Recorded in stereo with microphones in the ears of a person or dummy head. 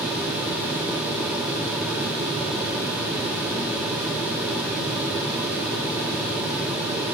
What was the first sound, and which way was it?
Only background noise.